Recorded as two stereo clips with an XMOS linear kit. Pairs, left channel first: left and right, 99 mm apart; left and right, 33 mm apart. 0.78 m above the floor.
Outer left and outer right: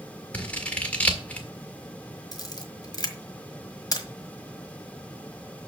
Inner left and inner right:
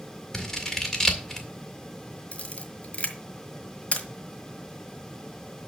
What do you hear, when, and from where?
0.3 s scissors: 15° left (ahead or behind), 1.8 m
2.3 s a camera shutter: 40° left (ahead or behind), 1.5 m